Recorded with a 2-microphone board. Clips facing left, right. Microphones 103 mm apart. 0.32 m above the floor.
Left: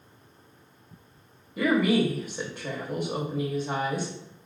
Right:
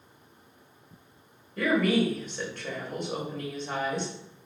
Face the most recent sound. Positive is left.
turn(degrees=5)  # may be behind; listen again after turning